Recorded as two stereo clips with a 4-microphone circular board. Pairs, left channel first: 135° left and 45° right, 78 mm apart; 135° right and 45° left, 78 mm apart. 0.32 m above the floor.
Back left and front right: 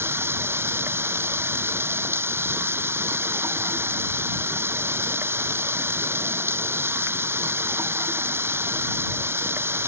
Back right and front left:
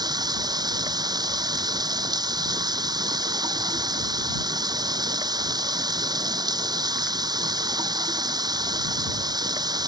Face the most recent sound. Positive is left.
turn(degrees=15)